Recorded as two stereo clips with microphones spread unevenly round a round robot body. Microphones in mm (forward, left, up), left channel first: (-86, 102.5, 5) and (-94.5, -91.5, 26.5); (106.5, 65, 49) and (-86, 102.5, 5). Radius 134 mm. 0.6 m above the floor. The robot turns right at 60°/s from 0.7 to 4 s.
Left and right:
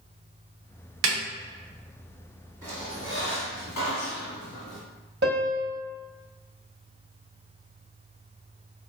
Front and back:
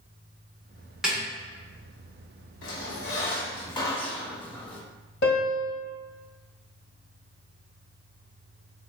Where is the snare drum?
105° right, 0.7 m; by 1.2 s 95° right, 0.7 m.